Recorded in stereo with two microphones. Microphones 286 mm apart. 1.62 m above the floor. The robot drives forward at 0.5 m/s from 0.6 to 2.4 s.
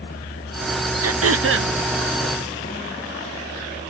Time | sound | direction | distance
1.0 | throat clearing | 55° right (ahead or behind) | 0.5 m